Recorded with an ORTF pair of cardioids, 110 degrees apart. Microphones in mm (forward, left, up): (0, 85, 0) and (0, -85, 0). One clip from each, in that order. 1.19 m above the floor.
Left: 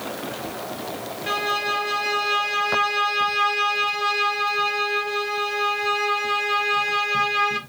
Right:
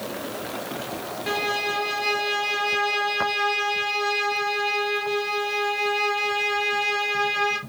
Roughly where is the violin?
Ahead.